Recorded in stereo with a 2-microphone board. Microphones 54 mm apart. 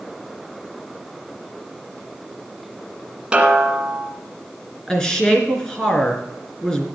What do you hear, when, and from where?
3.3 s a snare drum: 20° right (ahead or behind), 2 m
4.9 s a woman speaking: 10° left (ahead or behind), 2.5 m